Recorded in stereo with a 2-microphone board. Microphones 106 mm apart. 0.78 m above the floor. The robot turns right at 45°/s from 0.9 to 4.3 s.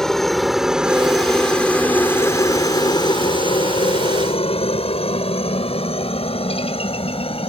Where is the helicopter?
5° left (ahead or behind); by 7.5 s 65° left (ahead or behind).